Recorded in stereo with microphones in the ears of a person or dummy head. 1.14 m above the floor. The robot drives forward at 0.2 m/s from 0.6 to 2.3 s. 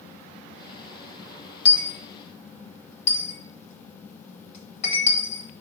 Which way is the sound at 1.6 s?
35° left (ahead or behind).